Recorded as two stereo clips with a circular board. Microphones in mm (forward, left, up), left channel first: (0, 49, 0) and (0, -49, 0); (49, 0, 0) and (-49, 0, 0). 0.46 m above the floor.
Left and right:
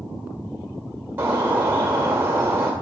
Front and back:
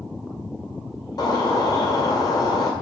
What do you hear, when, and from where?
1.2 s a bird: 25° right, 1.7 m